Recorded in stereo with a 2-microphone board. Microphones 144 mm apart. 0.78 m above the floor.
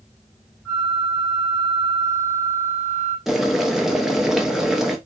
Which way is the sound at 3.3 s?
Centre (ahead or behind).